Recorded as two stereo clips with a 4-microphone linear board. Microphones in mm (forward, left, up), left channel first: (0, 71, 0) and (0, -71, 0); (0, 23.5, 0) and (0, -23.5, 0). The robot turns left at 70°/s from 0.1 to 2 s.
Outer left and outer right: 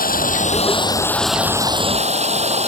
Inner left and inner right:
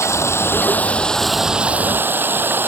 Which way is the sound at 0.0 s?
85° left.